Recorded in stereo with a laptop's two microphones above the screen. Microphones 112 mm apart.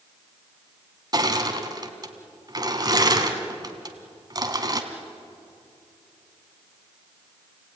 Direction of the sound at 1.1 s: 35° right (ahead or behind).